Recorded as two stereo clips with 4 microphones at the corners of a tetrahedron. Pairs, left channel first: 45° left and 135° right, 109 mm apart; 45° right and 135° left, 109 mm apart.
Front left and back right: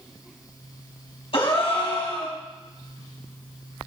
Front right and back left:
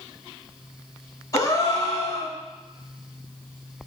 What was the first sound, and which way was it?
A gasp, 15° left.